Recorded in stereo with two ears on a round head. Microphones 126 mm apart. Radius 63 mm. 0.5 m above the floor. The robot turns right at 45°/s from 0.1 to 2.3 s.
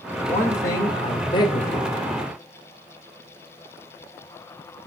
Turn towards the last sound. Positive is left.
turn(degrees=115)